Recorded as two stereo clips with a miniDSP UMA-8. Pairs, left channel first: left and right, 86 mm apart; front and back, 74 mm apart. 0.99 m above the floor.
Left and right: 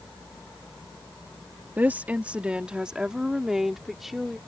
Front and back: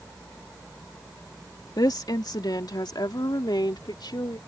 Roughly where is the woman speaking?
Ahead.